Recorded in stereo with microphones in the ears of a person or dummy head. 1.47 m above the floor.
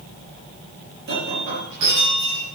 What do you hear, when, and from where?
1.1 s breaking glass: 65° right (ahead or behind), 7.5 m